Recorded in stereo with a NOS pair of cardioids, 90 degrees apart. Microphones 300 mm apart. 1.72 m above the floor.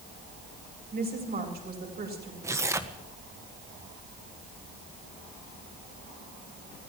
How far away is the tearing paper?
About 1.5 m.